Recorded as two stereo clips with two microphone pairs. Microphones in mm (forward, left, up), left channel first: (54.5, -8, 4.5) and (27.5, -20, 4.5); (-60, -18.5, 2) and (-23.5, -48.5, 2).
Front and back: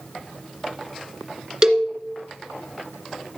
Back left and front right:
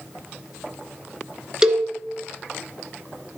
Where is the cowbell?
105° right, 1.8 m.